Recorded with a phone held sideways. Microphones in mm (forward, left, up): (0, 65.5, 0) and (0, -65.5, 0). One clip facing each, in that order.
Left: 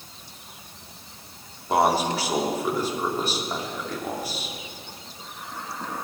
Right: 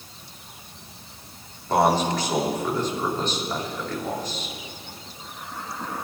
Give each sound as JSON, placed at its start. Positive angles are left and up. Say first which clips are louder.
{"t": 1.7, "sound": "a man speaking", "louder": "right 1 dB", "side_deg": 10, "distance_m": 3.0}